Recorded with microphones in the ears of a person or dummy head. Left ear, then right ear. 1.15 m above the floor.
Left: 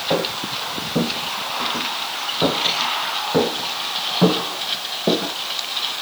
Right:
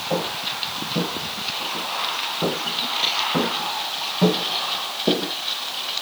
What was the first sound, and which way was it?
Footsteps, 60° left (ahead or behind).